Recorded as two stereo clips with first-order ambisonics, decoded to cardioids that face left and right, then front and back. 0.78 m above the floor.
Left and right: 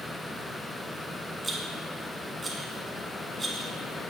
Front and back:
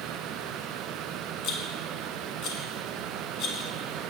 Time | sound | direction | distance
1.4 | a rattle | 15° right | 1.0 m